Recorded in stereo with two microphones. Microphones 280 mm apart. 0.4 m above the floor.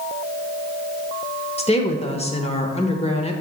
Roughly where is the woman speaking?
Left.